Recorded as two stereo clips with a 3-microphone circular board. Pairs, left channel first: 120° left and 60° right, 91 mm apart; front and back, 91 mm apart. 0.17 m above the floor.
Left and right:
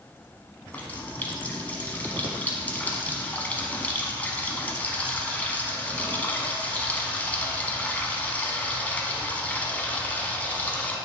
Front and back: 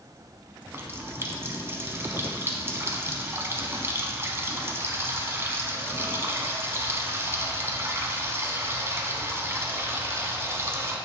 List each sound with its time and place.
0.7 s a running tap: 170° left, 0.9 m